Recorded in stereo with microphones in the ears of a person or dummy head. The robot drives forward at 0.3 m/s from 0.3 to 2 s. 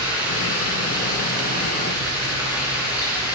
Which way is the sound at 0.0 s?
10° right (ahead or behind).